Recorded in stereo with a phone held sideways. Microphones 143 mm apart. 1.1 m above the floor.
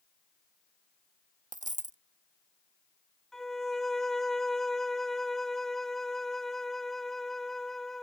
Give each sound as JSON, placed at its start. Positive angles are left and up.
{"t": 1.5, "sound": "a dropped coin", "side_deg": -55}
{"t": 3.3, "sound": "a violin", "side_deg": 5}